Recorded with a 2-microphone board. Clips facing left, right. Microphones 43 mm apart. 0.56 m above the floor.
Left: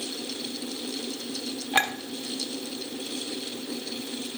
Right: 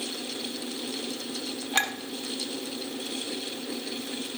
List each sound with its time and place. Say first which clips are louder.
1.7 s a clink: left 3 dB; 20° left (ahead or behind), 1.0 m